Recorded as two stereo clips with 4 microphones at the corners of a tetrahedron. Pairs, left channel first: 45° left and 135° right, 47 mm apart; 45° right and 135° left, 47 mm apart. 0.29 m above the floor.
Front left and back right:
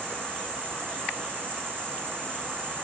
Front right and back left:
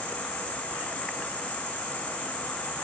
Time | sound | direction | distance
0.0 | an insect | 100° right | 2.5 m